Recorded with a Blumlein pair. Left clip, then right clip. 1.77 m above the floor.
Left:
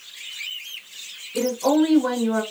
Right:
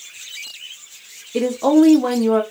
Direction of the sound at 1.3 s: 60° right.